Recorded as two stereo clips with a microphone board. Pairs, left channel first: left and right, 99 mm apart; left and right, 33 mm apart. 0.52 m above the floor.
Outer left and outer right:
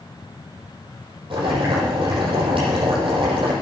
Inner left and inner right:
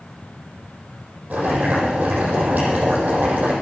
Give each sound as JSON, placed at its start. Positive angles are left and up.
{"t": 1.3, "sound": "boiling", "side_deg": -60, "distance_m": 9.0}